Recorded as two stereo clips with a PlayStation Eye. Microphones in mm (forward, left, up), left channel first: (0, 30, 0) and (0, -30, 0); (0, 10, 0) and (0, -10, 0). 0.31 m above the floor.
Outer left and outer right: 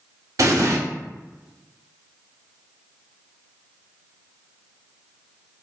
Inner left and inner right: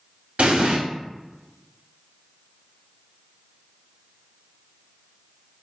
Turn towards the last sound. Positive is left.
turn(degrees=-60)  # may be behind; listen again after turning